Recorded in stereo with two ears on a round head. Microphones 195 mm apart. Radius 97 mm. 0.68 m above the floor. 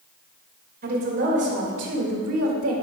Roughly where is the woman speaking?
Right.